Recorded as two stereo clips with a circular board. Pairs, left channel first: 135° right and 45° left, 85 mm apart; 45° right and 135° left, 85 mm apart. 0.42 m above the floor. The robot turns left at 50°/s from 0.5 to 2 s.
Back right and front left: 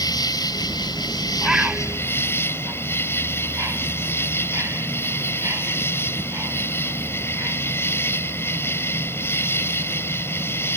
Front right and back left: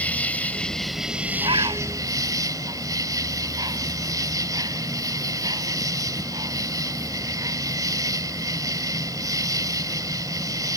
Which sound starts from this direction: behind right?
An insect, at 0.0 s.